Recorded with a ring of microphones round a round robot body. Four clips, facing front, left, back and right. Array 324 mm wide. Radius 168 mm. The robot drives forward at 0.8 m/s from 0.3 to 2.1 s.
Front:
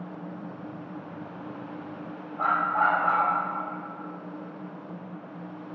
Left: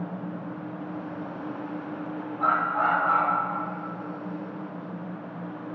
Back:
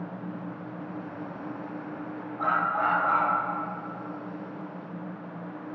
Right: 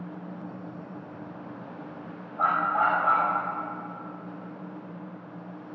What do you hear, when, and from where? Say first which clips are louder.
2.4 s a dog barking: even, front 2 dB; 75° right, 6 m